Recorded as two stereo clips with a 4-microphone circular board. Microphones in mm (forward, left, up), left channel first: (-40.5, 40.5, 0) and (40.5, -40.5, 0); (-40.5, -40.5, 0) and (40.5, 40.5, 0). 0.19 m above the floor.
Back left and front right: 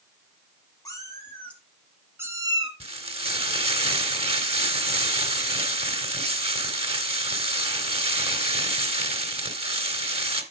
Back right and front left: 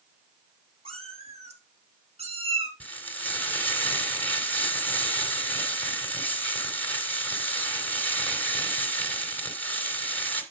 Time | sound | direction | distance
0.8 | a cat meowing | 75° left | 2.0 m
2.8 | frying | 65° right | 2 m